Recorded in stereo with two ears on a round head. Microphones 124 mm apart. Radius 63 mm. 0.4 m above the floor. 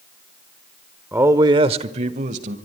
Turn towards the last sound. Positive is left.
turn(degrees=-55)  # may be behind; listen again after turning